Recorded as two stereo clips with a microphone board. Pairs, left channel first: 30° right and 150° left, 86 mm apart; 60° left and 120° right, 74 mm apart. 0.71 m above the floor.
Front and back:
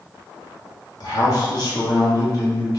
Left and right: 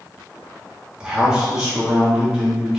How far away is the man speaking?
About 1.1 m.